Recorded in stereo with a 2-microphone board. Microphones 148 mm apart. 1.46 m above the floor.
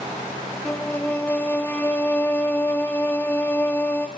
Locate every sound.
0.7 s a violin: 15° left (ahead or behind), 1.6 m